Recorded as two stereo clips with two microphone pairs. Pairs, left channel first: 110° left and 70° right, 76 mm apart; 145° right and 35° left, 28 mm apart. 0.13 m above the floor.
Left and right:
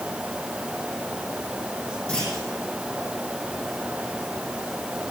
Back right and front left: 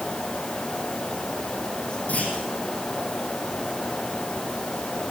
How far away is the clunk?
About 6 m.